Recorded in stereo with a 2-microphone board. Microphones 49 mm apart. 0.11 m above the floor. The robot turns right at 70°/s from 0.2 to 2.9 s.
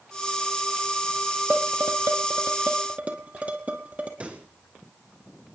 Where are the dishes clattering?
45° right (ahead or behind), 2.5 m; by 4.1 s 30° right (ahead or behind), 2.5 m.